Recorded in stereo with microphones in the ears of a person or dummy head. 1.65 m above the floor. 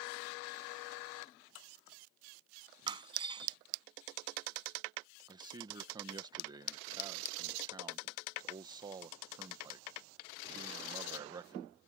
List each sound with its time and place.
2.9 s breaking glass: 30° right (ahead or behind)
5.3 s a man speaking: 25° right (ahead or behind)